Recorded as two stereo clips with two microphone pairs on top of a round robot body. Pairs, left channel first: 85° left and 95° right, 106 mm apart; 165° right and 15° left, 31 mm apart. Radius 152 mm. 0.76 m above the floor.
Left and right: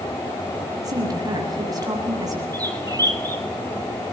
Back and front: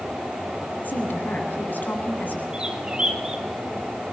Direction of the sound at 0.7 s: 150° right.